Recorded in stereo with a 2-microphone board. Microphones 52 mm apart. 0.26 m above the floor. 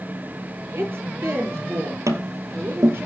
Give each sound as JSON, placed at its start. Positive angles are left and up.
{"t": 0.7, "sound": "a woman speaking", "side_deg": -50, "distance_m": 7.5}
{"t": 2.1, "sound": "tapping", "side_deg": -85, "distance_m": 1.4}